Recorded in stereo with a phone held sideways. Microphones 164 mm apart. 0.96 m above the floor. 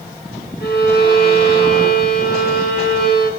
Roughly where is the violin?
Left.